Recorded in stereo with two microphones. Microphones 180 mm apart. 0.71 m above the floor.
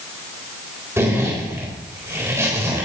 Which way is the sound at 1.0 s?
15° right (ahead or behind).